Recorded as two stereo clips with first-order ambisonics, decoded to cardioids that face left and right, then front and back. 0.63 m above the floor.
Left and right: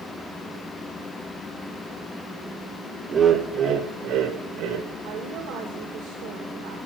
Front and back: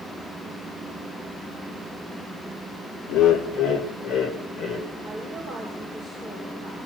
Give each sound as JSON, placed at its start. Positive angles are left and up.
{"t": 3.1, "sound": "laughter", "azimuth_deg": -25, "distance_m": 1.4}
{"t": 5.0, "sound": "a woman speaking", "azimuth_deg": -75, "distance_m": 2.5}